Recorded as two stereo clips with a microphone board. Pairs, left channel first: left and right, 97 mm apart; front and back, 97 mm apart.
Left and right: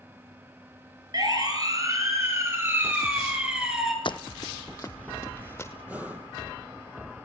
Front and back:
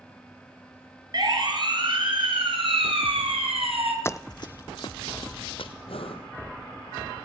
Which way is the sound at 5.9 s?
15° right.